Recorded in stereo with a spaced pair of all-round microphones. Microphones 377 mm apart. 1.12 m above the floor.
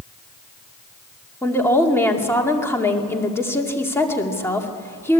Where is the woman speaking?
5° left (ahead or behind), 2 m.